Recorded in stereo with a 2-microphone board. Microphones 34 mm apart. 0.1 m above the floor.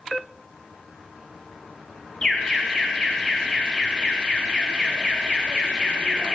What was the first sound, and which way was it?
An alarm, 20° left (ahead or behind).